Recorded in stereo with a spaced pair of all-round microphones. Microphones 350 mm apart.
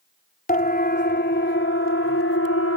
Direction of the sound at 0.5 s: 25° left (ahead or behind).